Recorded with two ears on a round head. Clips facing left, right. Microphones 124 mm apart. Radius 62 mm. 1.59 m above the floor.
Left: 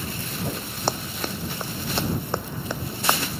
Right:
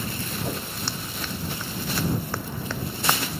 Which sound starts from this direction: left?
Running footsteps, at 0.9 s.